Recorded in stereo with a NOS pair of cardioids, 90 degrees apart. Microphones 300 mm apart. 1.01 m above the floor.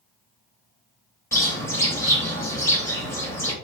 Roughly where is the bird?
Ahead.